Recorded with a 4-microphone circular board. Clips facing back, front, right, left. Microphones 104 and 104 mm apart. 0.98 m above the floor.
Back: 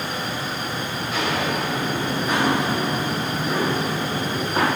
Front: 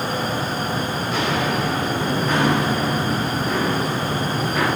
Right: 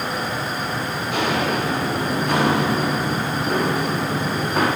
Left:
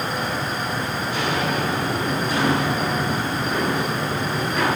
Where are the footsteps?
90° right, 7.5 m; by 4.7 s 130° right, 6.5 m.